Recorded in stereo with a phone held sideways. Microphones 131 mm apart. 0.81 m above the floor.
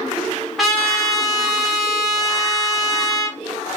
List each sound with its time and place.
0.6 s a trumpet: centre (ahead or behind), 1.5 m